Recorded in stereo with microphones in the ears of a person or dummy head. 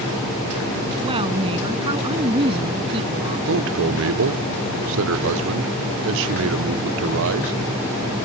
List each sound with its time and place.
1.0 s a woman speaking: 30° right (ahead or behind); by 3.4 s 35° right (ahead or behind)
3.5 s a man speaking: 75° right (ahead or behind)